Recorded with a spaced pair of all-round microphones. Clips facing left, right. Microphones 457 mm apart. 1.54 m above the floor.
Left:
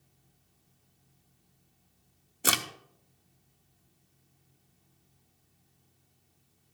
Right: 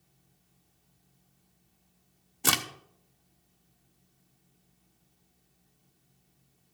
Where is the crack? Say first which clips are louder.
Right 1 dB; 15° right (ahead or behind), 0.5 m.